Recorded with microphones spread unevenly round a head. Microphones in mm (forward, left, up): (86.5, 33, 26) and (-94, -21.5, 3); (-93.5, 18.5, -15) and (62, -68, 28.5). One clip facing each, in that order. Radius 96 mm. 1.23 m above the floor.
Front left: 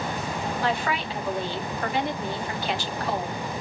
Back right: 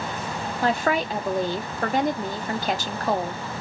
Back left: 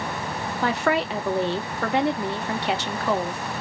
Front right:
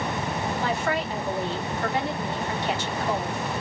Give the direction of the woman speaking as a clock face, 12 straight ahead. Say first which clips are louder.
Back right 6 dB, back left 7 dB; 7 o'clock.